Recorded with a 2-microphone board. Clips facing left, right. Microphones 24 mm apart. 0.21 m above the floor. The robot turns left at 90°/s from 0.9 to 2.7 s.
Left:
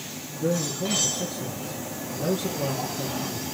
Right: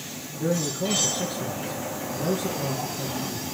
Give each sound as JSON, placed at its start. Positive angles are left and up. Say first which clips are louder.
{"t": 0.4, "sound": "a man speaking", "louder": "even", "azimuth_deg": -40, "distance_m": 3.0}